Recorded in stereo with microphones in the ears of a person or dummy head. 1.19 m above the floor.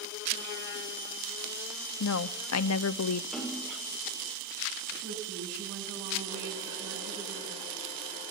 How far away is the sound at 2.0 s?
About 0.6 m.